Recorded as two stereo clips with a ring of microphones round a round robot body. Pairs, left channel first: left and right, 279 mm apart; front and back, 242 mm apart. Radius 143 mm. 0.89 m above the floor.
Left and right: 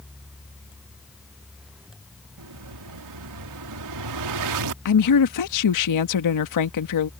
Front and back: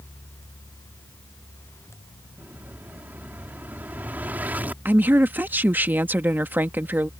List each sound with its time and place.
2.4 s an explosion: 95° right
4.8 s a woman speaking: 100° left